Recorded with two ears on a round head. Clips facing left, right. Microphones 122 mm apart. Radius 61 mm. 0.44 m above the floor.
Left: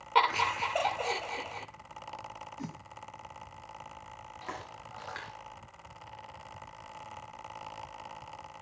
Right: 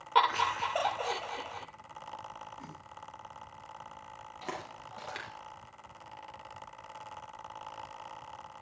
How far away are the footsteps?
About 7 m.